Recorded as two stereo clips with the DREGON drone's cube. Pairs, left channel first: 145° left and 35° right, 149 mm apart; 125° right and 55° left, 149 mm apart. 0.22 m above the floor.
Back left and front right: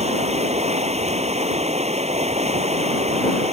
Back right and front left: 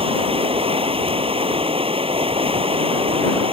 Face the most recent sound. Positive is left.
turn(degrees=5)